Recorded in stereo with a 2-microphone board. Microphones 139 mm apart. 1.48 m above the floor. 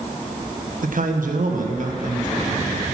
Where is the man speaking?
80° right, 1.2 m; by 2.9 s 70° right (ahead or behind), 2 m.